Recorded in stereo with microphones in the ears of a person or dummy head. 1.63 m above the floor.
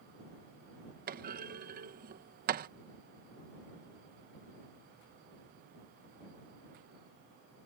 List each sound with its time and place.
1.1 s a clunk: 45° right (ahead or behind)